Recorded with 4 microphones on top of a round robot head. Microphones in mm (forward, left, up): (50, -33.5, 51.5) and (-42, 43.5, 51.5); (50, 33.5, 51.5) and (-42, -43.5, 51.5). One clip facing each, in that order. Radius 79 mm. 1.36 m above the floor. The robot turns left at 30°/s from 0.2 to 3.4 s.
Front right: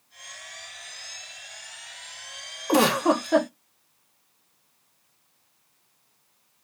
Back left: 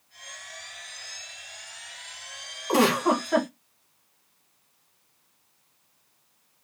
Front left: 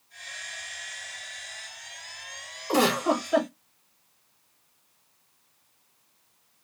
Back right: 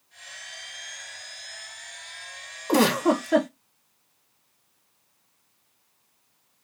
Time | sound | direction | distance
2.7 | a giggle | 100° right | 1.4 m